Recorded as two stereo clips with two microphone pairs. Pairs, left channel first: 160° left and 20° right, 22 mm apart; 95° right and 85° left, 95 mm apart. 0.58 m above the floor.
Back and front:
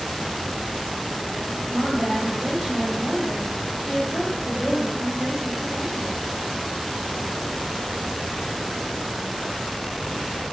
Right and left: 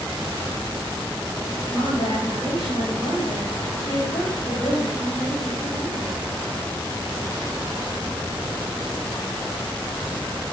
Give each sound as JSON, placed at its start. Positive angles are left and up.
{"t": 1.6, "sound": "a woman speaking", "azimuth_deg": -65, "distance_m": 3.0}